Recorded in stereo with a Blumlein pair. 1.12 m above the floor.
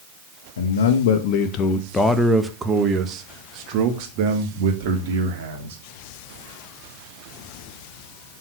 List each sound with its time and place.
0.6 s a man speaking: 65° left, 1.2 m; by 5.8 s 55° right, 3 m